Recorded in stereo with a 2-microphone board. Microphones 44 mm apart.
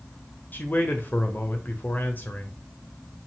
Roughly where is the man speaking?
Left.